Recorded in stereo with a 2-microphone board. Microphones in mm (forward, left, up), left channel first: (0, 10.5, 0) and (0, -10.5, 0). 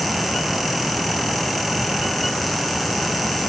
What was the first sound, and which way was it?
Only background noise.